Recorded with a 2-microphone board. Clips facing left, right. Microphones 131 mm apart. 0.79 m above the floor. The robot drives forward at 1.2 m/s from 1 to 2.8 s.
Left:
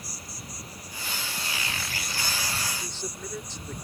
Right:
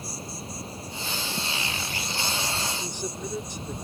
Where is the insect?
25° right (ahead or behind).